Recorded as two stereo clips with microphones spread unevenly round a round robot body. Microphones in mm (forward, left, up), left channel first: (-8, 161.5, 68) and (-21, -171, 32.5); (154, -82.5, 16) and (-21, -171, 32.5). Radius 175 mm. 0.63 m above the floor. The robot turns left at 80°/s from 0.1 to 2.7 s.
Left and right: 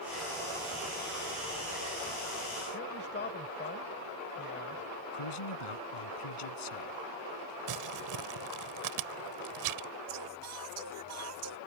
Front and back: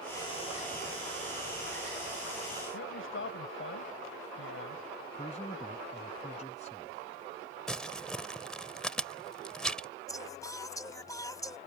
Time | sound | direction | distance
2.7 | a man speaking | 25° left | ?
5.1 | a man speaking | 100° left | ?
7.7 | crumpling | 60° right | ?
10.1 | singing | 45° right | ?